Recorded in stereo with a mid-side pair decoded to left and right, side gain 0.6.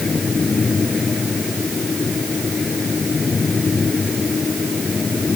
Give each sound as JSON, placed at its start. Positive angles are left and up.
{"t": 0.0, "sound": "a fan", "azimuth_deg": 30}